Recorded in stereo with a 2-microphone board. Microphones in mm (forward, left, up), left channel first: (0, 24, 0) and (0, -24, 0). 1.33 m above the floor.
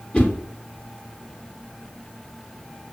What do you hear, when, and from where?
0.1 s a whoosh: 25° left (ahead or behind), 0.7 m